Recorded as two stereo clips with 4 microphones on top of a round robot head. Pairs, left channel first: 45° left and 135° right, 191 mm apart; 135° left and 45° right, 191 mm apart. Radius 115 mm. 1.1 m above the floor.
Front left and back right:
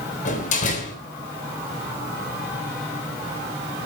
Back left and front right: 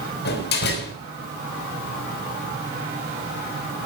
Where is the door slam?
100° left, 4 m.